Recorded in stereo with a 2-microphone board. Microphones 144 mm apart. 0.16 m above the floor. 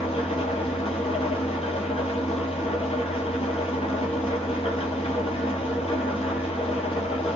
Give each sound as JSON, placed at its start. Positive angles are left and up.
{"t": 0.0, "sound": "an engine running", "side_deg": 45, "distance_m": 1.0}